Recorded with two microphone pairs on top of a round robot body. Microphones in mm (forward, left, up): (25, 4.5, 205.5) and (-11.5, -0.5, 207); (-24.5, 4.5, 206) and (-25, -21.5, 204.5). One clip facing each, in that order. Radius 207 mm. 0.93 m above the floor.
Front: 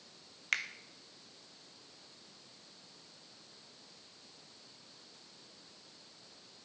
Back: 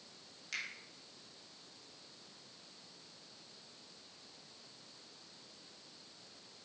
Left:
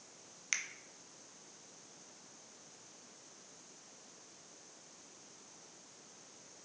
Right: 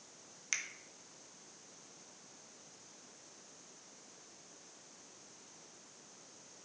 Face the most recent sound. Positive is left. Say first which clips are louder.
# front 8 dB, left 1 dB
turn(degrees=5)